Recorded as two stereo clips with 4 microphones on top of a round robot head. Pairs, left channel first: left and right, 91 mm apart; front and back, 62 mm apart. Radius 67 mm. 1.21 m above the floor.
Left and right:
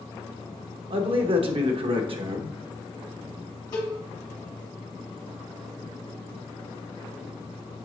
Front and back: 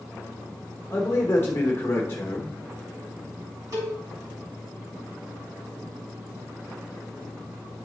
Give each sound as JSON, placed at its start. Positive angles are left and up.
{"t": 0.9, "sound": "a man speaking", "azimuth_deg": -65, "distance_m": 1.1}
{"t": 3.7, "sound": "a cowbell", "azimuth_deg": 150, "distance_m": 2.5}